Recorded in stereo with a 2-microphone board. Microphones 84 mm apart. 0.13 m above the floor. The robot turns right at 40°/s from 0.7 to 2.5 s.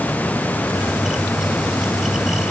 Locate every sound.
Only background noise.